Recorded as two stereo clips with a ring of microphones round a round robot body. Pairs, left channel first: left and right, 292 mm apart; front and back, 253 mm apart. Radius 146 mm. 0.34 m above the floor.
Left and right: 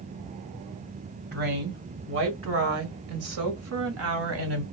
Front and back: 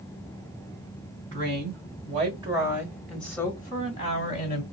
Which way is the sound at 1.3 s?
140° right.